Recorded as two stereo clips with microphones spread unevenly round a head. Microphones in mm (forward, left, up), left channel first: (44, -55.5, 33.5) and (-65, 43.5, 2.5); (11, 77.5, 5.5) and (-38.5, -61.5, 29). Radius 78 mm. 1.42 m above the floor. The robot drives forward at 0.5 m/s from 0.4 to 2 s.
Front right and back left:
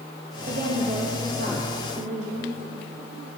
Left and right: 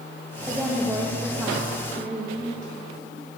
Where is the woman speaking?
170° left, 1.5 m; by 2.6 s 175° left, 2.5 m.